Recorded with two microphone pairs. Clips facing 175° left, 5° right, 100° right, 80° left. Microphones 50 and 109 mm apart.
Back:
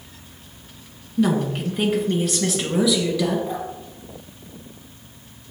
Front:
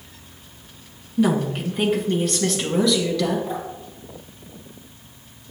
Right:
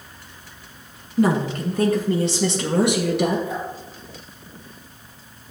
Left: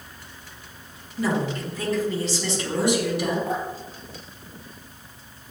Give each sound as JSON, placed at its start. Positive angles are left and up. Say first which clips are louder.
{"t": 1.2, "sound": "a woman speaking", "louder": "even, right 5 dB", "azimuth_deg": -90, "distance_m": 2.0}
{"t": 3.5, "sound": "dripping", "louder": "back 1 dB, left 1 dB", "azimuth_deg": 80, "distance_m": 4.0}